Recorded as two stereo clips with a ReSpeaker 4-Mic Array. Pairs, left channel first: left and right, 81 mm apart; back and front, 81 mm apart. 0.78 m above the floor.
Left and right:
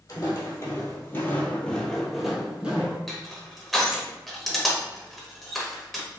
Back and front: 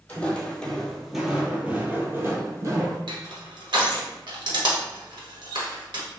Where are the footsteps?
115° left, 1.1 m; by 3.0 s 20° right, 1.1 m.